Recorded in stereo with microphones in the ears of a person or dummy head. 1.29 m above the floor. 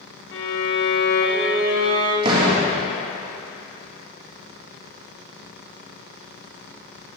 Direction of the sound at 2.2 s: 30° right (ahead or behind).